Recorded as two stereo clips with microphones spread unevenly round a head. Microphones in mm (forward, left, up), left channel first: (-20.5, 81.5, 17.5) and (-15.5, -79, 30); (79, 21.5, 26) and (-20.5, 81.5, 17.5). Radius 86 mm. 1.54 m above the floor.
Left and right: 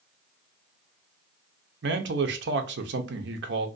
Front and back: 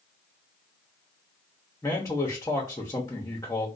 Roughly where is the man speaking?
Right.